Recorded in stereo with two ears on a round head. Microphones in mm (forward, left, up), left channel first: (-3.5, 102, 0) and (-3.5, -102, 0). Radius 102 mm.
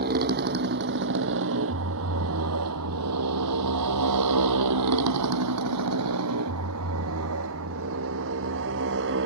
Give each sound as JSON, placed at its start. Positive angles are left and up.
{"t": 0.0, "sound": "a motorcycle", "side_deg": -40}